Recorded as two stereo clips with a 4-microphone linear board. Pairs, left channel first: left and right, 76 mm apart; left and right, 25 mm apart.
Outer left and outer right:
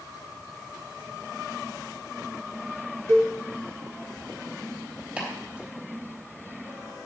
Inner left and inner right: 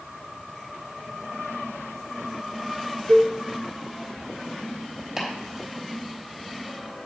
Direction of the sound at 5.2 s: 15° right (ahead or behind).